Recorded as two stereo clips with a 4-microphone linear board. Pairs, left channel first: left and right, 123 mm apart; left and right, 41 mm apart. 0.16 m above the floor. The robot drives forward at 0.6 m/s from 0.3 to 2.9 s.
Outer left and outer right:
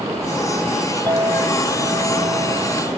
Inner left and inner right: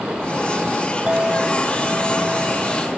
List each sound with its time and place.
1.1 s a clink: 30° right (ahead or behind)